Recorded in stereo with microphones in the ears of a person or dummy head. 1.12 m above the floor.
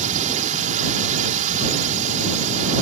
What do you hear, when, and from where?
0.0 s a drone: 40° right (ahead or behind)